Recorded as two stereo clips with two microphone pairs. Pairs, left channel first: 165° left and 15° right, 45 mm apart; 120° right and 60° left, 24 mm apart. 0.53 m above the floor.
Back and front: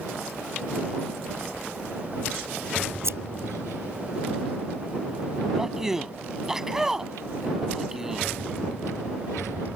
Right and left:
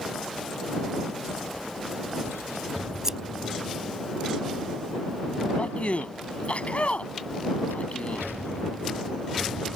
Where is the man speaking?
95° right.